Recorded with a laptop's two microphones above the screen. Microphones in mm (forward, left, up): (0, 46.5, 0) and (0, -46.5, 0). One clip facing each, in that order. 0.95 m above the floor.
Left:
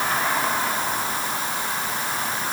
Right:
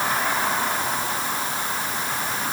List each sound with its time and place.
Only background noise.